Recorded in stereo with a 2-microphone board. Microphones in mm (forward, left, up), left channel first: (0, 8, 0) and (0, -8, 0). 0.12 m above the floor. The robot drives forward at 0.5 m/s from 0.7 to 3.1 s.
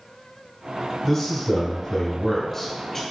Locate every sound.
1.0 s a man speaking: 15° left (ahead or behind), 1.7 m; by 3.0 s 20° left (ahead or behind), 1.1 m